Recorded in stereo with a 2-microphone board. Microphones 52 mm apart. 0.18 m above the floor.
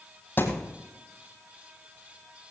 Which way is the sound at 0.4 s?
40° left (ahead or behind).